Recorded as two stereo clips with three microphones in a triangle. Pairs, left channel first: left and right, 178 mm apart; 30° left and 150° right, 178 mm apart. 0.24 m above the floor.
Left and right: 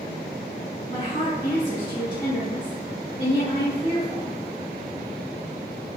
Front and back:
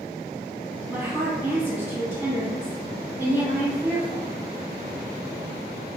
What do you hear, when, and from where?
0.9 s a woman speaking: 135° left, 1.7 m